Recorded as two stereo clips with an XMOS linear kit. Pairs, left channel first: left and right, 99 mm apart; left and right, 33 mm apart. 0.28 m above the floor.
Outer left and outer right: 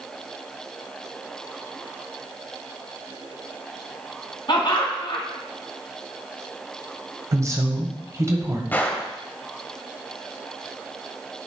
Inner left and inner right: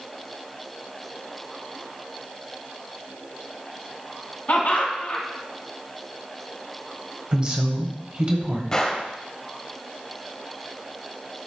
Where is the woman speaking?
30° right (ahead or behind), 1.3 m.